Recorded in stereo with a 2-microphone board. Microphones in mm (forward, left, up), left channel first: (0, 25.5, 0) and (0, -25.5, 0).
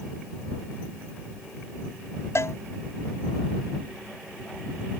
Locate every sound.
2.4 s a cowbell: 65° left (ahead or behind)